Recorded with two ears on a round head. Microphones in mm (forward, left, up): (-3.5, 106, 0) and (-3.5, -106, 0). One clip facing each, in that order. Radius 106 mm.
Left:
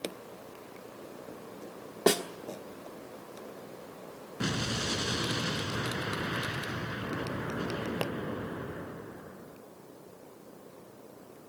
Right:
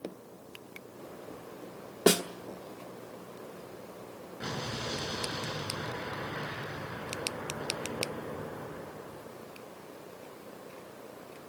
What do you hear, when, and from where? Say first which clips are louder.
2.1 s a snare drum: right 1 dB; 10° right (ahead or behind), 1.1 m
4.4 s an explosion: left 5 dB; 70° left (ahead or behind), 5 m